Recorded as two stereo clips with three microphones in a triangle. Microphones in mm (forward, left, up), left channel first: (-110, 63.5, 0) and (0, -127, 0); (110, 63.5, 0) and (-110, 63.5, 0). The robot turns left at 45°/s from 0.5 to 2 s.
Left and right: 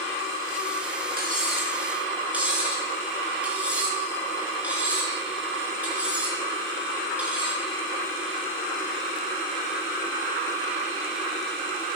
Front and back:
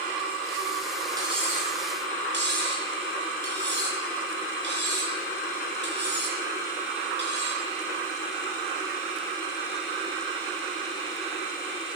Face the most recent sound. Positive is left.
turn(degrees=-145)